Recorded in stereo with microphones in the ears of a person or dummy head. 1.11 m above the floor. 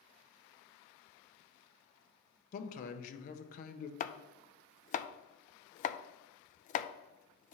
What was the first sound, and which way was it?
A man speaking, 50° left (ahead or behind).